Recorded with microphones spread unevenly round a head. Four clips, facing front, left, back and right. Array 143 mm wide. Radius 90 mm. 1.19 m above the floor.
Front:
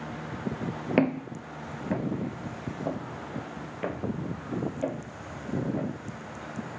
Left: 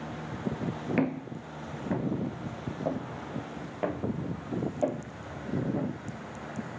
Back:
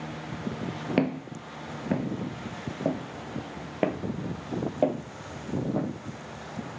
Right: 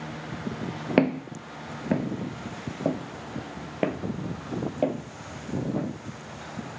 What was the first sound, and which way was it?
Footsteps, 60° right.